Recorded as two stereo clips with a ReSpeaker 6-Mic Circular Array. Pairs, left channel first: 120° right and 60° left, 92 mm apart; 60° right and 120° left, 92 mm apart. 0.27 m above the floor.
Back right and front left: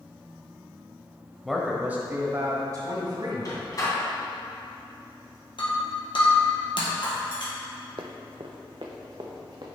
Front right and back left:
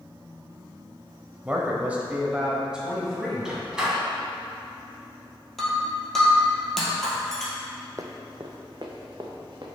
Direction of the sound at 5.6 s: 145° right.